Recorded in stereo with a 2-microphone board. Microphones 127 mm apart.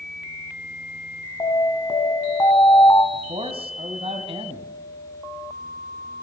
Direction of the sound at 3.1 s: 50° right (ahead or behind).